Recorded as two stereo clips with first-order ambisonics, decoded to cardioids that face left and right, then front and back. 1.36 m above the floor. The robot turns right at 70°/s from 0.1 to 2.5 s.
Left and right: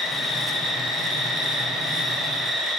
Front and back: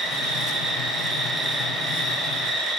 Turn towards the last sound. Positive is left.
turn(degrees=180)